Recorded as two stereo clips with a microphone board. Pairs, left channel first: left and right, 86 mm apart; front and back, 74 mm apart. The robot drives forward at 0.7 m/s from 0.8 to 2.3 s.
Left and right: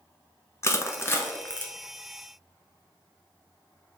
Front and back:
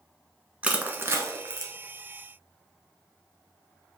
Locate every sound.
0.6 s crushing: 120° left, 0.7 m; by 1.7 s 155° left, 1.1 m